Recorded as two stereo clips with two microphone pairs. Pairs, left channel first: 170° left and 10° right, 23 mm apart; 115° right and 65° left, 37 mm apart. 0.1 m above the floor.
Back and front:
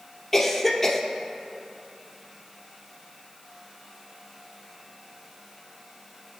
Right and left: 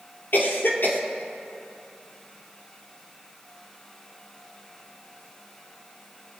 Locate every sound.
0.3 s a cough: 110° right, 2.5 m